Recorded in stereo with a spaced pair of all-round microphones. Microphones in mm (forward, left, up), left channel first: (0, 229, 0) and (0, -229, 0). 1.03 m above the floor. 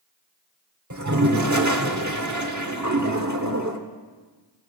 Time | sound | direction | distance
0.9 | a toilet flushing | 40° right (ahead or behind) | 1.1 m